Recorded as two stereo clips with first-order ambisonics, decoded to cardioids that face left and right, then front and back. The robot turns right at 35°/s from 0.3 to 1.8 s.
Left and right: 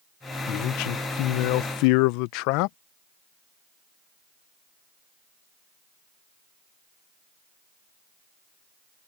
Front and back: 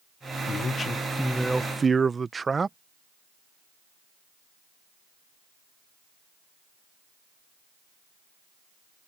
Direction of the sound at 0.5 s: 60° left.